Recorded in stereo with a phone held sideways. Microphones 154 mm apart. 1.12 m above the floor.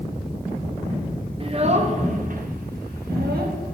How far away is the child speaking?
About 1.1 m.